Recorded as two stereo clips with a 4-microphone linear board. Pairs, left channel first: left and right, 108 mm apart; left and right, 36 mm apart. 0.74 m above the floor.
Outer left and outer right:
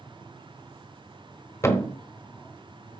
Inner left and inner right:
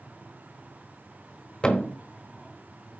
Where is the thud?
25° left (ahead or behind), 1.1 m.